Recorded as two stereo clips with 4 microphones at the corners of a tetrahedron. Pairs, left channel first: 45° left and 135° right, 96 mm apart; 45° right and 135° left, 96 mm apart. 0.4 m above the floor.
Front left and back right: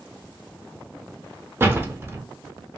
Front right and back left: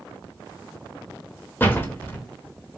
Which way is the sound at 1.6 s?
90° right.